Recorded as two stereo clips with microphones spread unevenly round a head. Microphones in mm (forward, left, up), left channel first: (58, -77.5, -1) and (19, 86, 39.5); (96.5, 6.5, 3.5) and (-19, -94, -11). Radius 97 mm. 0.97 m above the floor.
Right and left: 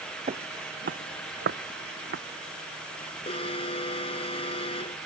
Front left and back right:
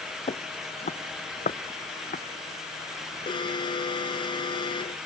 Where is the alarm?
15° right.